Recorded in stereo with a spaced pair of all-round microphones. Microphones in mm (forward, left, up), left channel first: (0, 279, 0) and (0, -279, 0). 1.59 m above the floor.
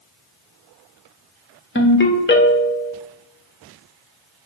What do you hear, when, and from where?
1.8 s a ringtone: 20° left (ahead or behind), 0.5 m